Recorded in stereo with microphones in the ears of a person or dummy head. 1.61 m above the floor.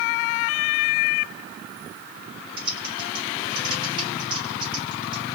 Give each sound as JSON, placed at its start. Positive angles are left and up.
{"t": 2.6, "sound": "typing on a keyboard", "side_deg": -30, "distance_m": 2.0}